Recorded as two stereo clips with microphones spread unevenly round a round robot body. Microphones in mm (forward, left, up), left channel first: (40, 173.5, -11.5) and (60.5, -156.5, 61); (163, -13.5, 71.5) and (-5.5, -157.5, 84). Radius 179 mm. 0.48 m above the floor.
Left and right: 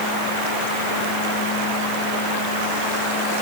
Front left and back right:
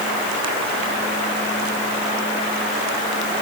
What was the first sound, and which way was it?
Only background noise.